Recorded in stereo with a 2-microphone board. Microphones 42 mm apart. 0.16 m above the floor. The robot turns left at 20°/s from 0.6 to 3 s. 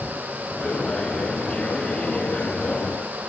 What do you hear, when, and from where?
Only background noise.